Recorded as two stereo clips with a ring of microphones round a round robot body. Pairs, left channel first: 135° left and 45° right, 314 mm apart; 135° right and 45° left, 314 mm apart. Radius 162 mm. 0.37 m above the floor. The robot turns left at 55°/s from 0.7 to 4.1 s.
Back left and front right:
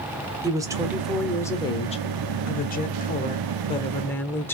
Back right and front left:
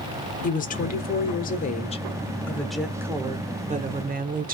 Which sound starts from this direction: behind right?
A woman speaking, at 0.4 s.